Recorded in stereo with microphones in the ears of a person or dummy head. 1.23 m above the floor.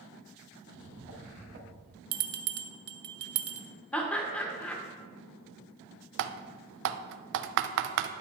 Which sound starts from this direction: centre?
Laughter, at 3.9 s.